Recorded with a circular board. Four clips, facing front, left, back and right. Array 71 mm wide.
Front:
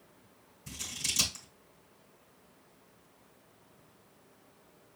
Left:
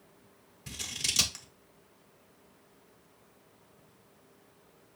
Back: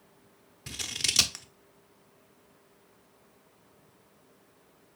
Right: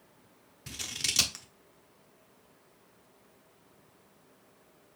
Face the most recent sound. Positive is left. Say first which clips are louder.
# even, back 5 dB
turn(degrees=-170)